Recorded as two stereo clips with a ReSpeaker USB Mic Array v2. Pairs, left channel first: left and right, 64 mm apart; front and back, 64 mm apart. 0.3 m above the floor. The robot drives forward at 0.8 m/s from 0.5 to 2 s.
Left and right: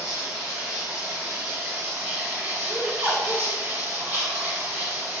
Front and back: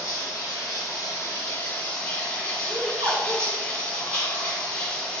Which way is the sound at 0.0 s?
15° right.